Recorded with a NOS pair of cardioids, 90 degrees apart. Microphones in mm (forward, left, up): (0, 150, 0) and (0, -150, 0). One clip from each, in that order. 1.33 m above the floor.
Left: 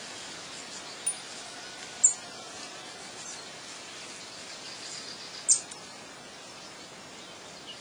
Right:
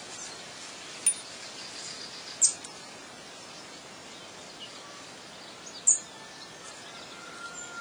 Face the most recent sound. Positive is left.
turn(degrees=-65)